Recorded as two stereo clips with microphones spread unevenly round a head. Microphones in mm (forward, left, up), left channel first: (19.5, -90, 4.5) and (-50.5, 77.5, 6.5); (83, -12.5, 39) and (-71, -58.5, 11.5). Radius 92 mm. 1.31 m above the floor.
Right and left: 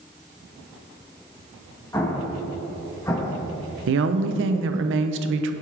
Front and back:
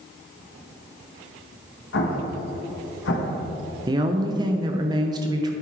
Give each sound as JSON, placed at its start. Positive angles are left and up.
{"t": 1.9, "sound": "an explosion", "azimuth_deg": 10, "distance_m": 1.2}
{"t": 3.9, "sound": "a woman speaking", "azimuth_deg": 130, "distance_m": 0.8}